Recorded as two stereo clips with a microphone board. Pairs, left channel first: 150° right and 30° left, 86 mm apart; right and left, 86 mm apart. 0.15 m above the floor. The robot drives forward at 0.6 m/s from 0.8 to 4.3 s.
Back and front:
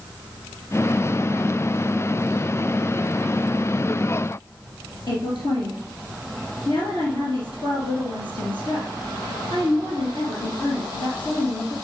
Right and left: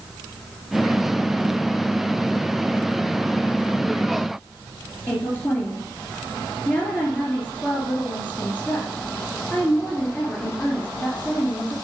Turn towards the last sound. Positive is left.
turn(degrees=-155)